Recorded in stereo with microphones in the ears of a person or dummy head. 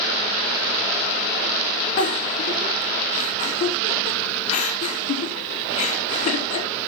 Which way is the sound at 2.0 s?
45° left (ahead or behind).